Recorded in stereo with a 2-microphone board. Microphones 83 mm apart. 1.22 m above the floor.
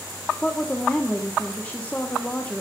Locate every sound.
0.4 s a woman speaking: 20° left (ahead or behind), 1.3 m